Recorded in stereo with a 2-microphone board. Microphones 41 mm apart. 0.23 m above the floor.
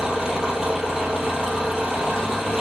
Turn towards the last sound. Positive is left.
turn(degrees=-10)  # may be behind; listen again after turning